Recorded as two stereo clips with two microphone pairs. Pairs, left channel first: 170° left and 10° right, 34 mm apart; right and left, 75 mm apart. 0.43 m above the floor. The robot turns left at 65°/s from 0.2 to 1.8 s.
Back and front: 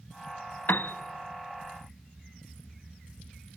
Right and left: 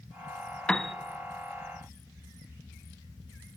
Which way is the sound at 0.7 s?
170° right.